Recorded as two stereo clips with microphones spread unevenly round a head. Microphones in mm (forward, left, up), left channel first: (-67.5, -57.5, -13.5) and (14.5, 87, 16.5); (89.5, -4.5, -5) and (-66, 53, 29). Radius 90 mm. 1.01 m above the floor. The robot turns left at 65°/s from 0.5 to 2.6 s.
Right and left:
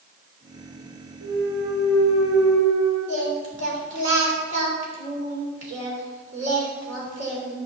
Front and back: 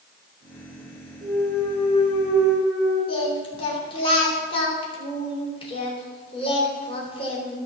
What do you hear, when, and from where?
1.2 s a clunk: 80° left, 3.5 m; by 3.0 s 10° right, 3.5 m
3.1 s singing: 35° left, 3.5 m